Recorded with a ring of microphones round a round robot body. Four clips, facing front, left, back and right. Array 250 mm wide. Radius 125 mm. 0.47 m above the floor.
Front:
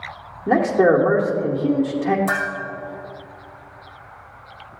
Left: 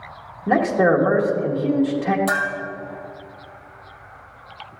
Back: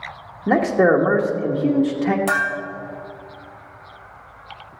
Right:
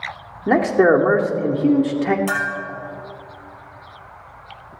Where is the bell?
170° left, 3.5 m.